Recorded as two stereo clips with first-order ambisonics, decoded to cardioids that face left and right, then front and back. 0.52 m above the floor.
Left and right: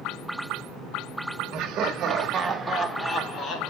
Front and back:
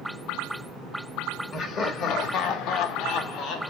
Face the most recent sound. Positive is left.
turn(degrees=45)